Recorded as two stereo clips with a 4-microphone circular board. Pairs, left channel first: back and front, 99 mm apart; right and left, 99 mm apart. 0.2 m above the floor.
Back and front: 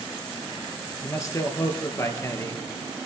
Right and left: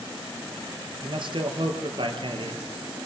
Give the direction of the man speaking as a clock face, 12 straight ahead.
8 o'clock.